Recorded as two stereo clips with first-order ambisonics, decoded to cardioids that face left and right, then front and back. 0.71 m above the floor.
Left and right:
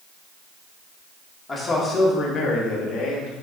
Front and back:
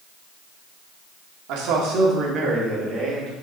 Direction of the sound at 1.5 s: 165° left.